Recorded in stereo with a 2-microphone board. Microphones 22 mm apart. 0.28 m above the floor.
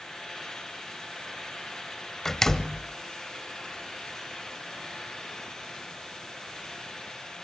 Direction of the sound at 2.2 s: 20° left (ahead or behind).